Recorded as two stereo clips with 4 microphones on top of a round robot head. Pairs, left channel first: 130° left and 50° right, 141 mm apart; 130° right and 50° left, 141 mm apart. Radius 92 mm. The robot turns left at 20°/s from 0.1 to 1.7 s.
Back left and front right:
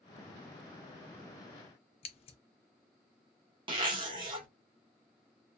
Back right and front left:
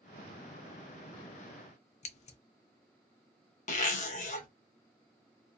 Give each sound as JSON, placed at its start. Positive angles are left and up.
{"t": 2.0, "sound": "scissors", "azimuth_deg": -175, "distance_m": 0.5}
{"t": 3.7, "sound": "a zipper", "azimuth_deg": -105, "distance_m": 0.9}